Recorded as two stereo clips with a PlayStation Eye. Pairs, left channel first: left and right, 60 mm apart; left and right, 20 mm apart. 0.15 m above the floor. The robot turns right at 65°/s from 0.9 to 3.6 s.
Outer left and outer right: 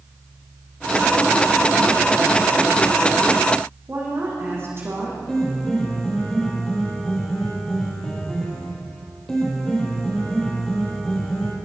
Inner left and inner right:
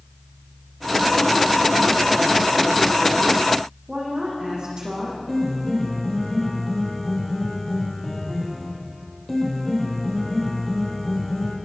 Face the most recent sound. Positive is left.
turn(degrees=10)  # may be behind; listen again after turning